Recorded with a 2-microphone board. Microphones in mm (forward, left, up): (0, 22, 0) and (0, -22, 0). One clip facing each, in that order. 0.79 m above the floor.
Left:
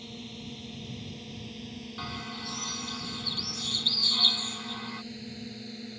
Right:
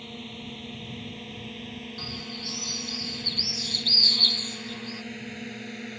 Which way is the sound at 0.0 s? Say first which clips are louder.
Right 3 dB; 30° right (ahead or behind).